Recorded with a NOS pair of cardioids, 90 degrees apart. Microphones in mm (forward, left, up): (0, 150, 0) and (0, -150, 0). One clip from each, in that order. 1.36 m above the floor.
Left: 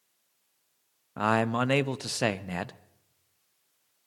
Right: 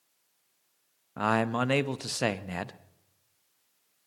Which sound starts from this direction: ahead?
A man speaking, at 1.2 s.